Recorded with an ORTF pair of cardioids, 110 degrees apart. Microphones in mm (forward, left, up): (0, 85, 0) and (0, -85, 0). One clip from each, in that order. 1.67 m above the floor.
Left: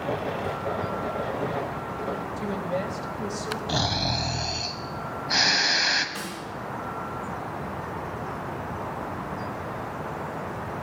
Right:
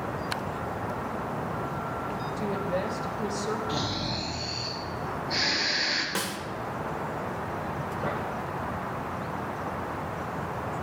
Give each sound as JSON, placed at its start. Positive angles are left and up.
{"t": 2.4, "sound": "a woman speaking", "azimuth_deg": 15, "distance_m": 1.0}
{"t": 3.7, "sound": "snoring", "azimuth_deg": 60, "distance_m": 0.9}
{"t": 6.2, "sound": "a snare drum", "azimuth_deg": -70, "distance_m": 1.2}